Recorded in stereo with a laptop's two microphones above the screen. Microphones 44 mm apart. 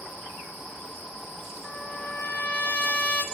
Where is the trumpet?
30° left (ahead or behind), 0.7 m.